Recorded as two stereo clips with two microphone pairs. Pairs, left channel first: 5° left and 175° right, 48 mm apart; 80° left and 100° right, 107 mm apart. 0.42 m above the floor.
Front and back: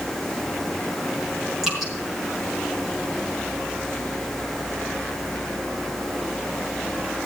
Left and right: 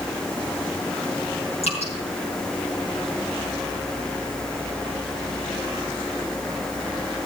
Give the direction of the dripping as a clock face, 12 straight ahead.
9 o'clock.